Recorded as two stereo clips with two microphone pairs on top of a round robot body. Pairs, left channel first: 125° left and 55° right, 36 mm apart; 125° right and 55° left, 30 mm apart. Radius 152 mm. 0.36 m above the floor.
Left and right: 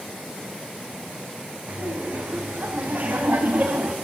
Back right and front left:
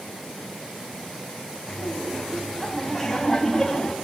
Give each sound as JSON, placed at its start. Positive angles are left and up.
{"t": 1.7, "sound": "laughter", "azimuth_deg": -30, "distance_m": 3.0}